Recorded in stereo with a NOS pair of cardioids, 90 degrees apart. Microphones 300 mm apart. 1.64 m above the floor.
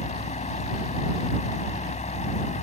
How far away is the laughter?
No laughter in this recording.